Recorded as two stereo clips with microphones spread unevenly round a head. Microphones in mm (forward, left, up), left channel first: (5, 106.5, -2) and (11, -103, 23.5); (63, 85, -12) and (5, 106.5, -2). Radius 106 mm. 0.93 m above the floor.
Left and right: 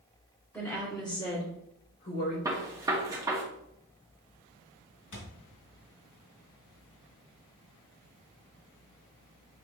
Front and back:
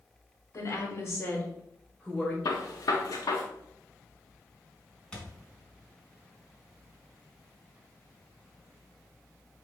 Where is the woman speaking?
10° left, 2.5 m; by 2.4 s 65° left, 3.5 m.